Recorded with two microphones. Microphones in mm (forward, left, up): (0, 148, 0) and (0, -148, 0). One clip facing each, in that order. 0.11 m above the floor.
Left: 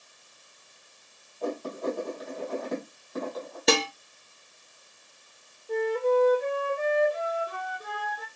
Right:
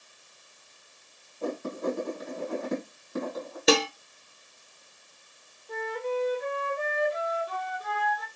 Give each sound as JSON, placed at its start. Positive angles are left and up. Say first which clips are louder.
{"t": 1.4, "sound": "writing", "louder": "even", "side_deg": -30, "distance_m": 3.0}
{"t": 3.7, "sound": "dishes clattering", "louder": "right 2 dB", "side_deg": 0, "distance_m": 1.1}
{"t": 5.7, "sound": "a flute", "louder": "left 8 dB", "side_deg": 30, "distance_m": 1.5}